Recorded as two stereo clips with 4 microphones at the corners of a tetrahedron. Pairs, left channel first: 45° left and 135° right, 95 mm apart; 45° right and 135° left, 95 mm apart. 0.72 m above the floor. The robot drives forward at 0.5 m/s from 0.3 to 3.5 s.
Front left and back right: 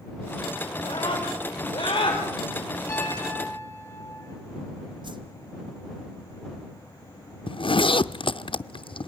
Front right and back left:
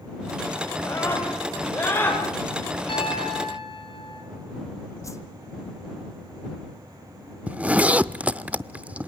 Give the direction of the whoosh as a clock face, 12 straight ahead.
3 o'clock.